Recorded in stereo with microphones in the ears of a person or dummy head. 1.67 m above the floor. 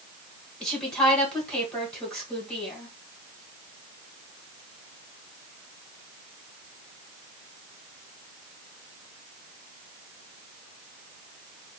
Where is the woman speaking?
Centre (ahead or behind), 1.8 m.